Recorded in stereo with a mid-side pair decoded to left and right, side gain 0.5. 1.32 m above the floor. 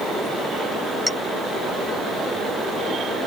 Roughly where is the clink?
Ahead.